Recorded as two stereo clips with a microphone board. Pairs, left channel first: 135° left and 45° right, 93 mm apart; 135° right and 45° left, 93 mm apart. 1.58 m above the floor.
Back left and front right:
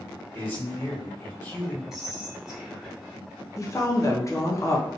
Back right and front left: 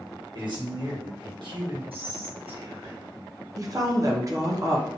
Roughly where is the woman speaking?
Left.